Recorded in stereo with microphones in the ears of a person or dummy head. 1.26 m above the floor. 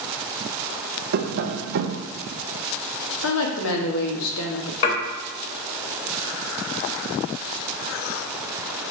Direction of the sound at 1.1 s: 55° right (ahead or behind).